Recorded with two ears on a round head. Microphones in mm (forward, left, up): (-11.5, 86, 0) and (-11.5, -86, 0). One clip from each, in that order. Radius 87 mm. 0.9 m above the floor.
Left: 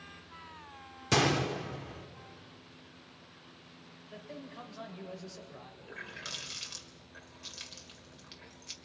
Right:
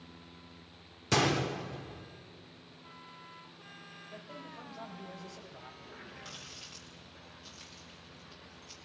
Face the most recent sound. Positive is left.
turn(degrees=60)  # may be behind; listen again after turning